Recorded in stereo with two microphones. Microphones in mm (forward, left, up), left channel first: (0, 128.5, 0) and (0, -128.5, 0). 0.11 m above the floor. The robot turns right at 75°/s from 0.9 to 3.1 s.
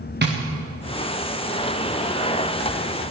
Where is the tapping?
40° right (ahead or behind), 2.5 m.